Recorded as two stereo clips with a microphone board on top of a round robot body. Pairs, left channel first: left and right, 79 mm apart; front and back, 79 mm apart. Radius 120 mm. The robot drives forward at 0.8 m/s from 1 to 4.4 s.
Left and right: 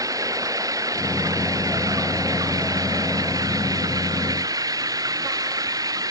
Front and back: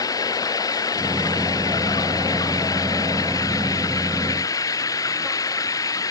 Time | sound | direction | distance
0.0 | running water | 45° right | ?